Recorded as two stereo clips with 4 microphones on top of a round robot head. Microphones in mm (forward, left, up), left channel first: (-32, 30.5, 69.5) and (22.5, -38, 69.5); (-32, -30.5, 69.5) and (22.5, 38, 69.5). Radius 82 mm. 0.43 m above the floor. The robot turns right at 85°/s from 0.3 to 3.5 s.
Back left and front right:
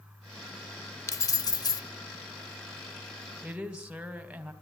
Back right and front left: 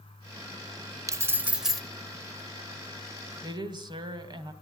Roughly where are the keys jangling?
Left.